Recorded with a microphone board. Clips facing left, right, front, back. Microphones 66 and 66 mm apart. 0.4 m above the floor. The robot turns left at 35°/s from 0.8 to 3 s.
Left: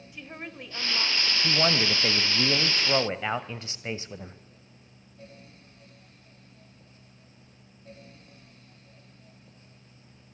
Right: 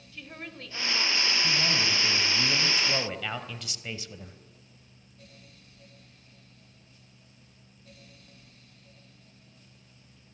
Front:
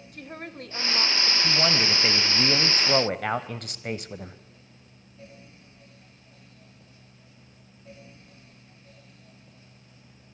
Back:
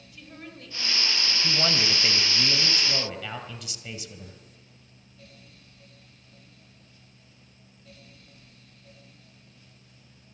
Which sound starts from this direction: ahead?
A woman speaking, at 0.1 s.